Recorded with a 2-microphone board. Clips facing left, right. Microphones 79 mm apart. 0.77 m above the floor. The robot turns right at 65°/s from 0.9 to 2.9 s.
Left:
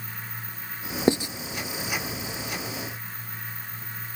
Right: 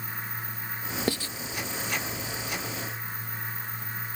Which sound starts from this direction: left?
Writing, at 1.1 s.